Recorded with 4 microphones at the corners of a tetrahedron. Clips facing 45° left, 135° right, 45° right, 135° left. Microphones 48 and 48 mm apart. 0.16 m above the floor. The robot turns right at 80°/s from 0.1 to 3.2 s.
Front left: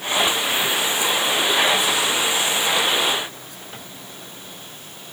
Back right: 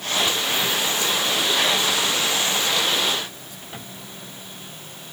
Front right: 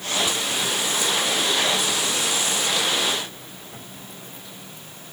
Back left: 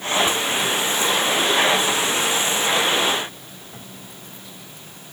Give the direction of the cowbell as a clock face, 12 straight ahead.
I don't hear a cowbell.